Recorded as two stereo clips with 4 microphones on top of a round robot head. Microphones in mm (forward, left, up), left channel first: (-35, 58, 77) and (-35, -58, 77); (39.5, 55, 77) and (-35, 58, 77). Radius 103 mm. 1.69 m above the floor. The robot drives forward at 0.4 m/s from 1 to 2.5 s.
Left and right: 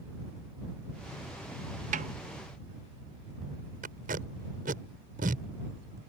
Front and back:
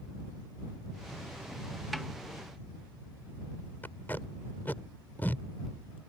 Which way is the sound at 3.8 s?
80° right.